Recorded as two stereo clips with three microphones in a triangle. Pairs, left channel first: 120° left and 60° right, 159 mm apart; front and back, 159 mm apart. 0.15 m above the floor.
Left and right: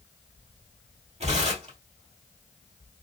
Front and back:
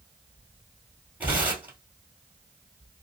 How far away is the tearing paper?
About 1.9 m.